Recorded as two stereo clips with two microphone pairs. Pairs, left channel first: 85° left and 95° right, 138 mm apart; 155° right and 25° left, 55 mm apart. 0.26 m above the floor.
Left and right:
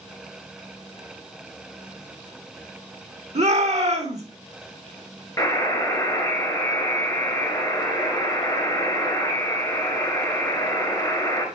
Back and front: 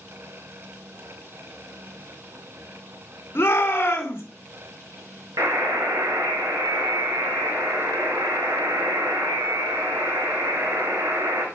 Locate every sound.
3.4 s a shout: 120° right, 2.5 m
5.4 s a buzzer: 20° left, 2 m